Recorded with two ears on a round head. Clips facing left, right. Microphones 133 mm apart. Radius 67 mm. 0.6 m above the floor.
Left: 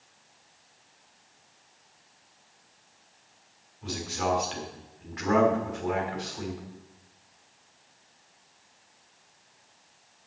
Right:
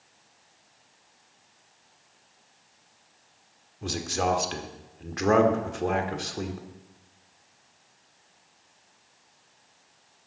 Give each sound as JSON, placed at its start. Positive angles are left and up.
{"t": 3.8, "sound": "a man speaking", "side_deg": -60, "distance_m": 1.5}